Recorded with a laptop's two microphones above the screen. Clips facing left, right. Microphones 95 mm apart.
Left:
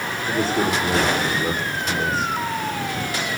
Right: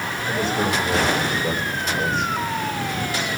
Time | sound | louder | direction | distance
0.3 | a man speaking | left 1 dB | 40° left (ahead or behind) | 4 m